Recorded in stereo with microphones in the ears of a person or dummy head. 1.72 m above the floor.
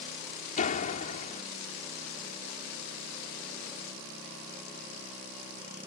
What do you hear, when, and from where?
0.6 s a door slam: 45° left (ahead or behind)